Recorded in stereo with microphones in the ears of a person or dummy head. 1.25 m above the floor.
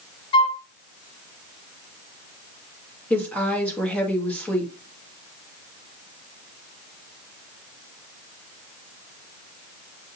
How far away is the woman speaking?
About 1.5 m.